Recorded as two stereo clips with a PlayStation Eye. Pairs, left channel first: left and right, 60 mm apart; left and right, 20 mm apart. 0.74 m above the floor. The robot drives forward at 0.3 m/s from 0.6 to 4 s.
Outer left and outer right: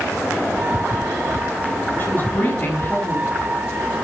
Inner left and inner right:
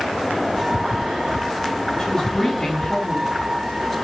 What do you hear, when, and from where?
2.0 s a woman speaking: 40° left (ahead or behind), 6 m